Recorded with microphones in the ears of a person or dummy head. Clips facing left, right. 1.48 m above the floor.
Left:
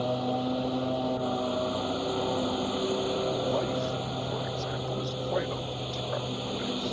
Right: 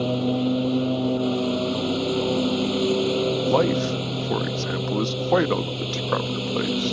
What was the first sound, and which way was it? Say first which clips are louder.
A lawn mower: right 6 dB; 45° right (ahead or behind).